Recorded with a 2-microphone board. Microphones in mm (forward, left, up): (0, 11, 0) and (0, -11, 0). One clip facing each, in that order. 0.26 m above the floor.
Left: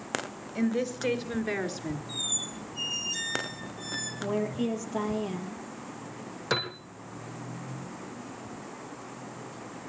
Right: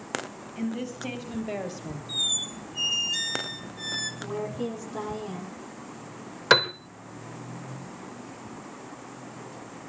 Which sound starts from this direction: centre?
A squeak, at 2.1 s.